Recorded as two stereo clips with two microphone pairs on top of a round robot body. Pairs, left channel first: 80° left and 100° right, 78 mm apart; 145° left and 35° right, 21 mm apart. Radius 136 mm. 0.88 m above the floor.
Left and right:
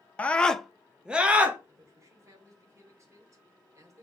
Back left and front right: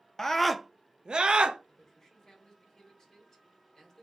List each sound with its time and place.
0.2 s a scream: 115° left, 0.5 m; by 1.6 s 25° right, 0.8 m
1.7 s a man speaking: 150° right, 2.0 m